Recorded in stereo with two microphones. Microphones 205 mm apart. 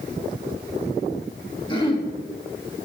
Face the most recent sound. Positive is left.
turn(degrees=25)  # may be behind; listen again after turning